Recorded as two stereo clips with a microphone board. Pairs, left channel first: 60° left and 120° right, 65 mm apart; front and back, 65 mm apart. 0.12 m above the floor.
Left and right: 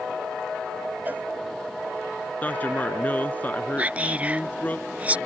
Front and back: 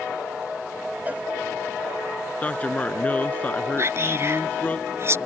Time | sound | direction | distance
1.1 | a cowbell | 145° right | ?
2.4 | a man speaking | 35° left | ?
3.8 | whispering | 175° right | ?